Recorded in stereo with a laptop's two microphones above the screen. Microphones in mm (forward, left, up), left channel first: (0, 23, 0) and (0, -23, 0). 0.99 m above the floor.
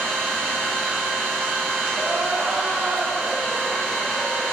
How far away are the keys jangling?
No keys jangling in this recording.